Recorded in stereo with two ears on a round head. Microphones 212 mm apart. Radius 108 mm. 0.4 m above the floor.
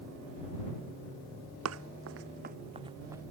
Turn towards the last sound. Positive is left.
turn(degrees=-10)  # may be behind; listen again after turning